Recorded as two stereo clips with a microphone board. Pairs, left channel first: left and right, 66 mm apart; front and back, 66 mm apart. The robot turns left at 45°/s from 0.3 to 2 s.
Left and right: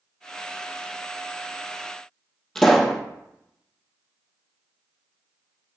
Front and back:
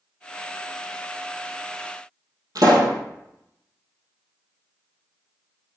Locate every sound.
2.5 s a pop: 170° left, 2.0 m